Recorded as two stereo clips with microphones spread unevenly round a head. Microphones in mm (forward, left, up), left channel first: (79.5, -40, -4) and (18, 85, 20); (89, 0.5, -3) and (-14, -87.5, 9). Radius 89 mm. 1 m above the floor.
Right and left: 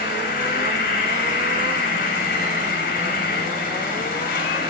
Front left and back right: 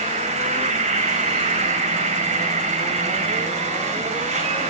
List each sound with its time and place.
0.0 s an insect: 110° right, 6 m